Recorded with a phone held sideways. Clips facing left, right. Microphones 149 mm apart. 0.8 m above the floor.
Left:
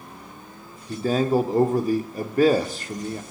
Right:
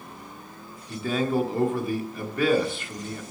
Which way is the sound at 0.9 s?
40° left (ahead or behind).